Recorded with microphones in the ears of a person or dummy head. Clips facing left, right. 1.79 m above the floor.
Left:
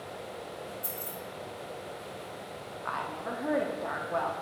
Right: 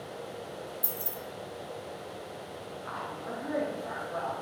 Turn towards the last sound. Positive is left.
turn(degrees=75)  # may be behind; listen again after turning